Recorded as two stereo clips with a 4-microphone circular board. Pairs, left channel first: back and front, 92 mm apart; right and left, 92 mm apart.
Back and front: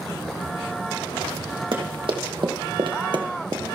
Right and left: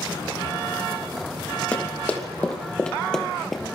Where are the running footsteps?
20° right, 3 m; by 3.6 s straight ahead, 1.3 m.